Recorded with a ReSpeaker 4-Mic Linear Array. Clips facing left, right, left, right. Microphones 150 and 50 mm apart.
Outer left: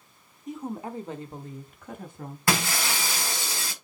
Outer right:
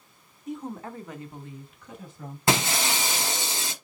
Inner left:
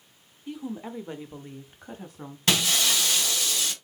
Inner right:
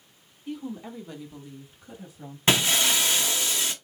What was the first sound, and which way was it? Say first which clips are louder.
A woman speaking: outer left 1 dB, even; centre (ahead or behind).